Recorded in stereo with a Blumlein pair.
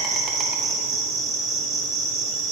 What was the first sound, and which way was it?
An insect, 25° right.